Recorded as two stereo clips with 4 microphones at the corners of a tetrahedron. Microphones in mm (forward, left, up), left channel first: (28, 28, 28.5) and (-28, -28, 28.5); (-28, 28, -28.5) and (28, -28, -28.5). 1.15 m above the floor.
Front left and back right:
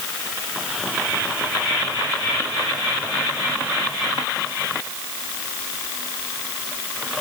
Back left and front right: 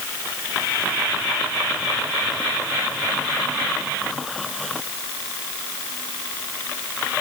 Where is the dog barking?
I don't hear a dog barking.